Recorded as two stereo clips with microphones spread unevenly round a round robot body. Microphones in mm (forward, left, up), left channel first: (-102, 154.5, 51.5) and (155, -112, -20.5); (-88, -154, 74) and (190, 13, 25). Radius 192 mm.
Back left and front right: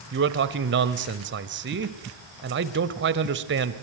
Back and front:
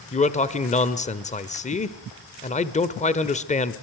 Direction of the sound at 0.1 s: 80° right.